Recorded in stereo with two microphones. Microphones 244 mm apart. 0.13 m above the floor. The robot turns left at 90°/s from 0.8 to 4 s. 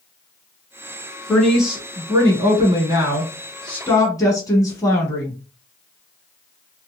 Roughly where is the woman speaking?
Centre.